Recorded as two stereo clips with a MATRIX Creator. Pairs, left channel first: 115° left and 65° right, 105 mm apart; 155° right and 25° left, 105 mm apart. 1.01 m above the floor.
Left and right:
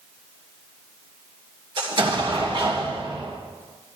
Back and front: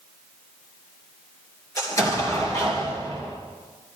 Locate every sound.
1.8 s an explosion: 100° right, 3 m